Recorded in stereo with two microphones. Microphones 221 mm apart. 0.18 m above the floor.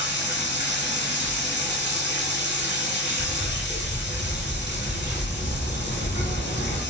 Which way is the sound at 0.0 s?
55° left (ahead or behind).